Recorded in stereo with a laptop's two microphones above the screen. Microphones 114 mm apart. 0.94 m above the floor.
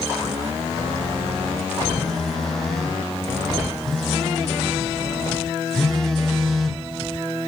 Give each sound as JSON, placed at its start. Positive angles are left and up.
{"t": 2.0, "sound": "a phone buzzing", "side_deg": 5, "distance_m": 1.1}